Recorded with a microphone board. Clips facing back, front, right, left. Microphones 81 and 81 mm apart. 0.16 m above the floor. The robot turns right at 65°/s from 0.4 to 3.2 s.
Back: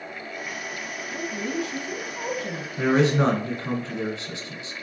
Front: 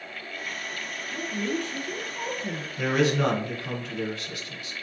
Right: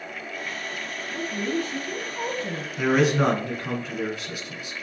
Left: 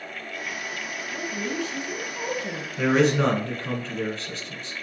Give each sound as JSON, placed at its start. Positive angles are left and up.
{"t": 1.1, "sound": "a woman speaking", "azimuth_deg": -135, "distance_m": 1.5}
{"t": 2.8, "sound": "a man speaking", "azimuth_deg": 175, "distance_m": 1.4}